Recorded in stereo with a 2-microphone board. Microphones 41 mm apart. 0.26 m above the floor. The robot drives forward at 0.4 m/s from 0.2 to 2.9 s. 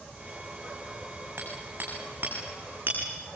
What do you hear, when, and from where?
1.4 s hammering: 45° right (ahead or behind), 8 m; by 3.0 s 40° right (ahead or behind), 8.5 m